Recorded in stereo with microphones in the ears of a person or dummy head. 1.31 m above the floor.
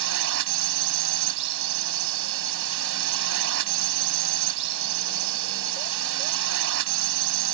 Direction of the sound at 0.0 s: 65° right (ahead or behind).